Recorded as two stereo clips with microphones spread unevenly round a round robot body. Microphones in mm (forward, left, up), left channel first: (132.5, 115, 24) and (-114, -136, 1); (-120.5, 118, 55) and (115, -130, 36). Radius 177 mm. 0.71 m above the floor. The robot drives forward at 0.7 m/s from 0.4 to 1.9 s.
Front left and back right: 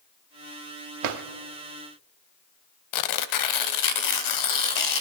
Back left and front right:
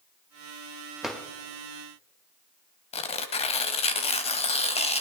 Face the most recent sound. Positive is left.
turn(degrees=65)